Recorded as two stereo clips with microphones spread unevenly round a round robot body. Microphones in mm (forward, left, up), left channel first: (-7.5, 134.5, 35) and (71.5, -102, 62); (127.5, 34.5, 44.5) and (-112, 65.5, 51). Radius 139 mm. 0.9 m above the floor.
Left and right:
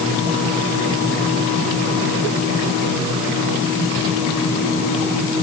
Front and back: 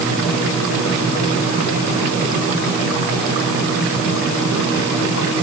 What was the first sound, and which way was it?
Only background noise.